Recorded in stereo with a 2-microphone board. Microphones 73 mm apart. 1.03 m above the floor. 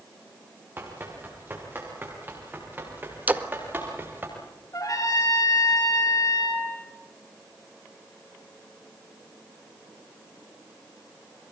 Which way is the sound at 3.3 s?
20° right (ahead or behind).